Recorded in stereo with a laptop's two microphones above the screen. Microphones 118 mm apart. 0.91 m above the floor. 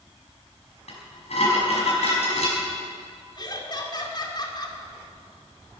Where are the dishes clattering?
65° left (ahead or behind), 4.5 m.